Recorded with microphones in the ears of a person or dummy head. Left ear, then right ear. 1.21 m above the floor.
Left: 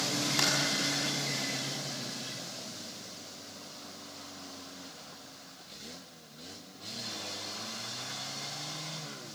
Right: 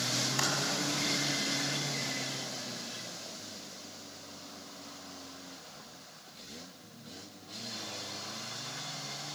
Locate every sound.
0.4 s typing on a keyboard: 5° right (ahead or behind), 7 m